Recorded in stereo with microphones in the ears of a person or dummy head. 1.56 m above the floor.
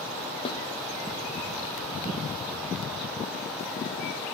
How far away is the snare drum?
About 0.8 m.